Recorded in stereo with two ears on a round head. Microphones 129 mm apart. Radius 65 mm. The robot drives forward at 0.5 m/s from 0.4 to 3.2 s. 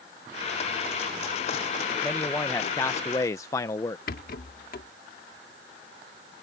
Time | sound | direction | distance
2.0 | a man speaking | 15° left (ahead or behind) | ?
4.1 | a rattle | 65° left (ahead or behind) | ?